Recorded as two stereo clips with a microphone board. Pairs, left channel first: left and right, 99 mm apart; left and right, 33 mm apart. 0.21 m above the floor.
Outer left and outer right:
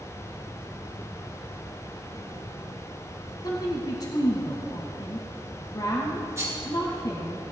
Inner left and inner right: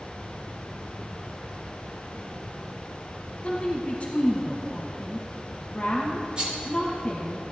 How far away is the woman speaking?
About 1.3 m.